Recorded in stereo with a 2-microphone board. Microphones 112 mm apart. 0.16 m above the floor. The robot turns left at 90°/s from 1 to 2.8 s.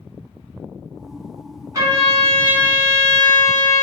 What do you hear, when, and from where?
1.7 s a trumpet: 30° right (ahead or behind), 1.8 m; by 3.8 s centre (ahead or behind), 1.8 m